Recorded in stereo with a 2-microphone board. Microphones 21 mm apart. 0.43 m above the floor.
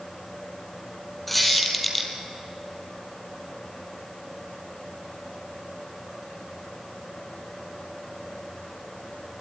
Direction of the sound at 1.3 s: 5° left (ahead or behind).